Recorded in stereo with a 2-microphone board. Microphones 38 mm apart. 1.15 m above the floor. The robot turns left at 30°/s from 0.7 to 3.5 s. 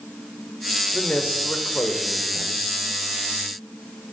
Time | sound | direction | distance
0.9 | a man speaking | 140° left | 3.5 m